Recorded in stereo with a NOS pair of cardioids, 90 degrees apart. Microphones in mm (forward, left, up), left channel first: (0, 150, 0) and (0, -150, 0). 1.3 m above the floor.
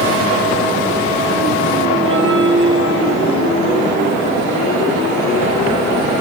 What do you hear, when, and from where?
2.0 s a bell: 40° right, 6.5 m